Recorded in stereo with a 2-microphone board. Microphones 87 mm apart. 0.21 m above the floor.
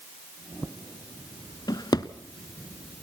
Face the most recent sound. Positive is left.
turn(degrees=55)  # may be behind; listen again after turning